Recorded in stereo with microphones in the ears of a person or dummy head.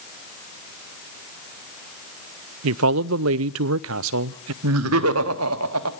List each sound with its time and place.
2.6 s a man speaking: 70° right (ahead or behind), 0.5 m
4.6 s laughter: 80° right, 1.5 m